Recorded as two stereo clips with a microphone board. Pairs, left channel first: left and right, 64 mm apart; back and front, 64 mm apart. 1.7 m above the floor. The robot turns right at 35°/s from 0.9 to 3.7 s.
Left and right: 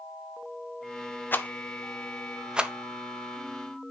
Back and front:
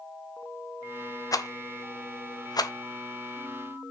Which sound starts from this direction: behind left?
A rattle, at 1.3 s.